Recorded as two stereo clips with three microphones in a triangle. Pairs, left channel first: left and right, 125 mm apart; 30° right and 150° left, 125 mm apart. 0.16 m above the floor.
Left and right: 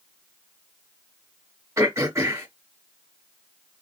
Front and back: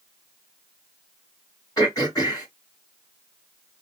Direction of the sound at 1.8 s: 45° right.